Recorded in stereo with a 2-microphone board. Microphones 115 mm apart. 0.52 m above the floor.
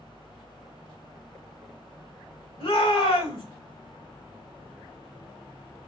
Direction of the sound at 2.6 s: 55° left (ahead or behind).